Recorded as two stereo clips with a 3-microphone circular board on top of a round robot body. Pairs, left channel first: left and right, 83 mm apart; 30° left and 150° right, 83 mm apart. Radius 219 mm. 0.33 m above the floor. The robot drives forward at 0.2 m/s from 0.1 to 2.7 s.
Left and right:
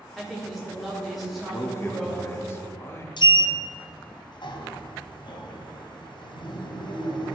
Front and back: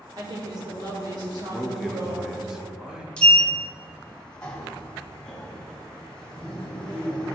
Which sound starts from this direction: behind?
A woman speaking, at 0.2 s.